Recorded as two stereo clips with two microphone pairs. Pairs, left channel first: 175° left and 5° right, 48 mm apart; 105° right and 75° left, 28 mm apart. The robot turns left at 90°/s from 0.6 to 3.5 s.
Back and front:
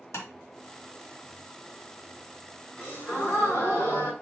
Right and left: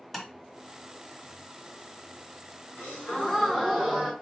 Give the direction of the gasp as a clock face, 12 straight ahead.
4 o'clock.